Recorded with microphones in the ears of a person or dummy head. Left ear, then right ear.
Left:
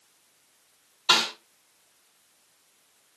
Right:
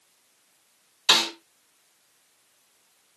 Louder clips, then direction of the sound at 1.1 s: Right 1 dB; 40° right (ahead or behind).